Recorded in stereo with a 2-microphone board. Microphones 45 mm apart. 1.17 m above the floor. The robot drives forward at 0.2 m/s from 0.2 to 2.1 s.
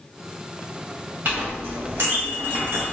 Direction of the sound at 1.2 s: 55° right (ahead or behind).